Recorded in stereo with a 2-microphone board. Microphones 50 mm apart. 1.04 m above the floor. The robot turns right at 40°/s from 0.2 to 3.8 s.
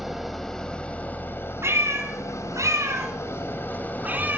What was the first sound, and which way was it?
An engine running, straight ahead.